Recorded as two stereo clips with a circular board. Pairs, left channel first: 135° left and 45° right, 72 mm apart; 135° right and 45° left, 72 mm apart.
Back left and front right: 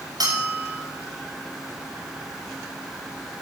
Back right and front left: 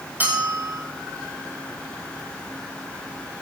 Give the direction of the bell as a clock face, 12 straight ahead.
1 o'clock.